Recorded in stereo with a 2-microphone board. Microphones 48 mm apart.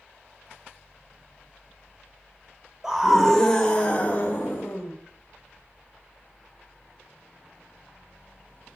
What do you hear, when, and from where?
2.8 s a scream: 10° right (ahead or behind), 1.3 m; by 4.9 s 50° left (ahead or behind), 1.8 m